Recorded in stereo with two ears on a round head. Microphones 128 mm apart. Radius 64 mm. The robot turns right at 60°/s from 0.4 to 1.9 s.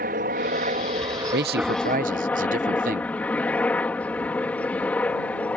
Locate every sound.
0.0 s a helicopter: 80° right; by 5.6 s 10° left
1.3 s a man speaking: 95° right; by 3.1 s 65° right